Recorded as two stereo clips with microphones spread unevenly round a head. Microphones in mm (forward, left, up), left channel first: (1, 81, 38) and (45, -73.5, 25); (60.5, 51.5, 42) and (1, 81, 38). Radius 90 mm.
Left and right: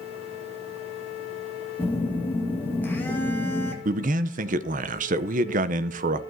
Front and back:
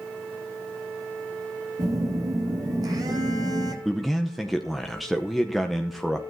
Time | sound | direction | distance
1.8 | a phone buzzing | 175° right | 1.9 m
3.9 | a man speaking | 120° right | 0.6 m